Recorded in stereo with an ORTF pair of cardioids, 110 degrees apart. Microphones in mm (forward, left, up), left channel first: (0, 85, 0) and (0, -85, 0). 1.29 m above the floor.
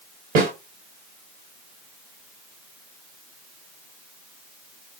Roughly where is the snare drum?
Ahead right.